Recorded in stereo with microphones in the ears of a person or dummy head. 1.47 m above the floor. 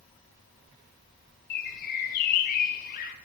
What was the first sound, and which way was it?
A bird, 45° left (ahead or behind).